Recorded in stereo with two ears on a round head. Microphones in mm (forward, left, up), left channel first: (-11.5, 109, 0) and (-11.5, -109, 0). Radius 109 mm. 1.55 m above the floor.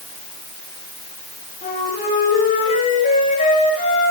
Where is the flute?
30° left (ahead or behind), 7.5 m.